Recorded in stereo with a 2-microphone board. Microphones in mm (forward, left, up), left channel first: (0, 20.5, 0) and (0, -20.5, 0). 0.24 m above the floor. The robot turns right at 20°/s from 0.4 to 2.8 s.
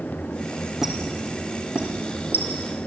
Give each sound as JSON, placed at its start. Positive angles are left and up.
{"t": 0.8, "sound": "a squeak", "side_deg": -10, "distance_m": 3.0}